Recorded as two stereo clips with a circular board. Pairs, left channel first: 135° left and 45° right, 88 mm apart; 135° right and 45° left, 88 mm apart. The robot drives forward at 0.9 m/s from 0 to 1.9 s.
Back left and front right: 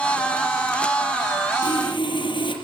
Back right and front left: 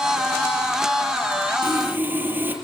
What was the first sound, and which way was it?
Sawing, 110° left.